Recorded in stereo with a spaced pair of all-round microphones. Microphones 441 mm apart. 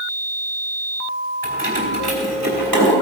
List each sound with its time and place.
1.4 s keys jangling: 65° right (ahead or behind), 3 m; by 2.9 s 45° right (ahead or behind), 3 m